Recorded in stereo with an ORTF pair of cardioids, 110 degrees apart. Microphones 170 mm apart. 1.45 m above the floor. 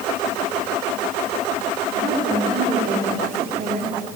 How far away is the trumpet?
No trumpet in this recording.